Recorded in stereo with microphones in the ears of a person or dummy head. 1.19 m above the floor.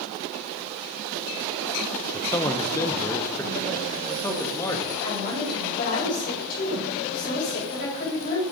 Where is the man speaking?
15° left (ahead or behind), 0.7 m.